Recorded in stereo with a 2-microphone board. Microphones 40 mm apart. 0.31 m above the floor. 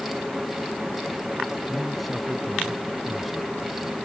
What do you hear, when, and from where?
1.7 s a man speaking: centre (ahead or behind)